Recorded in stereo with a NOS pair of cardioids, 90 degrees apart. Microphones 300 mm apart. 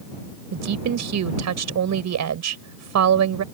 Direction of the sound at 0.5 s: 60° right.